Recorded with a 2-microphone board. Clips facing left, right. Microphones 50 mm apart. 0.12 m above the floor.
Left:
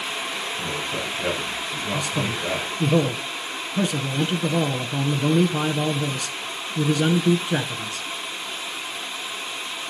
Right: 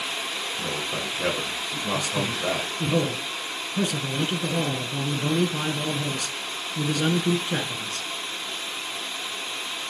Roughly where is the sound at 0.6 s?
Right.